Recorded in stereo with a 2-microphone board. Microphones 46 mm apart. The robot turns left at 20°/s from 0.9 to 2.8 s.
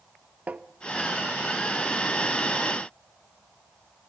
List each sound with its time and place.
0.5 s tapping: 30° right (ahead or behind), 0.6 m